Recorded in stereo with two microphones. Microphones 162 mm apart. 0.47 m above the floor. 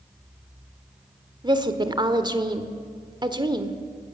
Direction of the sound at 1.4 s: 30° right (ahead or behind).